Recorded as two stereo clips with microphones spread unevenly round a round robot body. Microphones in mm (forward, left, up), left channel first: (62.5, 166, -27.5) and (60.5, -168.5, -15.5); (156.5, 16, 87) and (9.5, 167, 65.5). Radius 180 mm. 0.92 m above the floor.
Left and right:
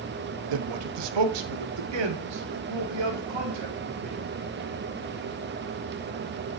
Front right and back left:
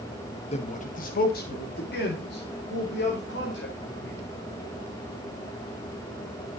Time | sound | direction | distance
0.5 | a man speaking | 110° right | 0.8 m